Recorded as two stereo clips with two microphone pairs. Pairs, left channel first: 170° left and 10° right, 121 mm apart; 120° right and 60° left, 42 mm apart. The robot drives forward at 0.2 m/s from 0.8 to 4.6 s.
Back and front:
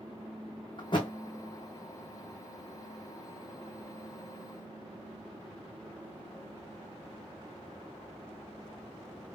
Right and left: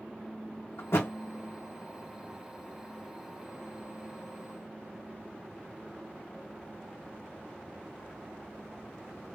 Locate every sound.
0.8 s a thud: 140° right, 1.9 m